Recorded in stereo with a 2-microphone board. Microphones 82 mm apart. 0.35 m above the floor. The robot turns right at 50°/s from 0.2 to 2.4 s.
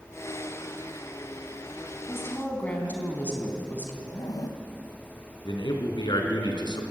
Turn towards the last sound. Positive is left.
turn(degrees=65)  # may be behind; listen again after turning